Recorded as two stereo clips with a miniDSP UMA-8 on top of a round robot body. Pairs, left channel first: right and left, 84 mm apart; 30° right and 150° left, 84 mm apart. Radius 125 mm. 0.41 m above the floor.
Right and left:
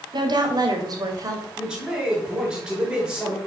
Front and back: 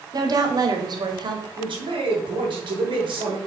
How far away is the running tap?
No running tap in this recording.